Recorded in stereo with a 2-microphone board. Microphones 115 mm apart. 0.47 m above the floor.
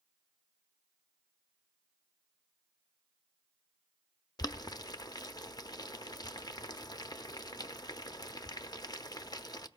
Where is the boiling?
35° left (ahead or behind), 0.5 m.